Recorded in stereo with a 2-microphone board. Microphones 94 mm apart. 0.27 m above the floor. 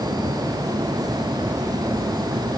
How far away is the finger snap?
No finger snap in this recording.